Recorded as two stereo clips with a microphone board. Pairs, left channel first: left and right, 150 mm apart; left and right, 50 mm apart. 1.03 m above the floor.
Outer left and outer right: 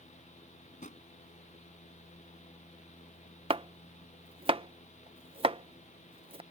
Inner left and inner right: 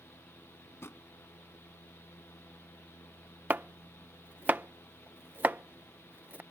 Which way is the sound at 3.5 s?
40° right (ahead or behind).